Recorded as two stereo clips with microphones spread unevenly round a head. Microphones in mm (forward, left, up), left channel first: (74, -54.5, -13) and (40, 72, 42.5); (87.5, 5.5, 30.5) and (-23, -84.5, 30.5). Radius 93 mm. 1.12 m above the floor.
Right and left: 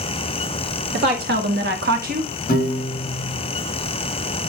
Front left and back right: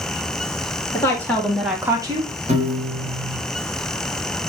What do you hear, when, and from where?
0.9 s a woman speaking: 115° left, 2 m; by 2.3 s 160° left, 1.1 m
2.5 s a piano: 100° right, 4 m